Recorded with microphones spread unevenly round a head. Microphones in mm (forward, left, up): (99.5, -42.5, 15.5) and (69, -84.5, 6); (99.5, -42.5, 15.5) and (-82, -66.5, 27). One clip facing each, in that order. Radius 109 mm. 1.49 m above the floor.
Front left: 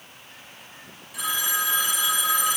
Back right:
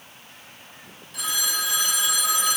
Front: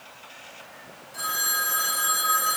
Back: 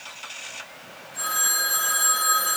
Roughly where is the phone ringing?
Ahead right.